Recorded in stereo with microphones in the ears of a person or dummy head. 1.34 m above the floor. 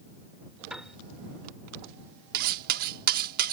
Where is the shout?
No shout in this recording.